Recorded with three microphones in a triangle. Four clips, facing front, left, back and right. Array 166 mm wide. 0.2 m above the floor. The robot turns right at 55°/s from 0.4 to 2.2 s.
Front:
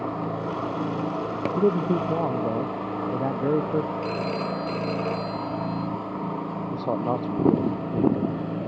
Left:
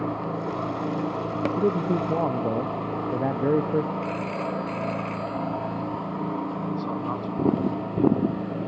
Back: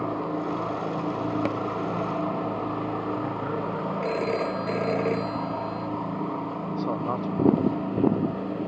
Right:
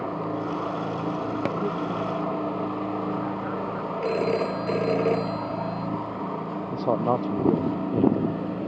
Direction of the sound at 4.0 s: 105° right.